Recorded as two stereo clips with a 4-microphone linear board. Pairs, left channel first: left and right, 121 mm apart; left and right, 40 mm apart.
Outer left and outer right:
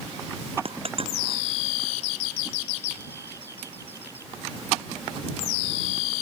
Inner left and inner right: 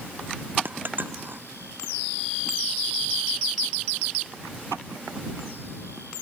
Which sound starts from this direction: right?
A dropped coin, at 0.7 s.